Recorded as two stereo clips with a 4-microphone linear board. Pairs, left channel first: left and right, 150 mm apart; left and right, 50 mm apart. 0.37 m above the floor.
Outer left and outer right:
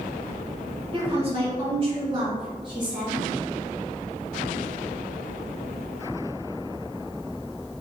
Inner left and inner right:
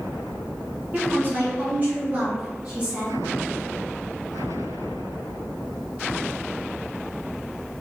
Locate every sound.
0.9 s a woman speaking: 35° right (ahead or behind), 1.3 m; by 3.2 s 30° right (ahead or behind), 2.5 m